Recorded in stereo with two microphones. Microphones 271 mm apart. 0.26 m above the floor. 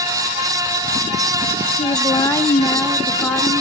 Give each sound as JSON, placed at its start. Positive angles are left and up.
{"t": 1.8, "sound": "a woman speaking", "side_deg": 15, "distance_m": 1.0}